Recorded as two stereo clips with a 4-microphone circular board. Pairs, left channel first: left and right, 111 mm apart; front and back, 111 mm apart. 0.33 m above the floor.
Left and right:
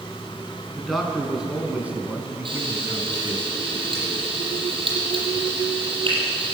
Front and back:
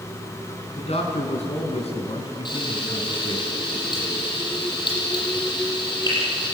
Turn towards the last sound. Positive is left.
turn(degrees=-50)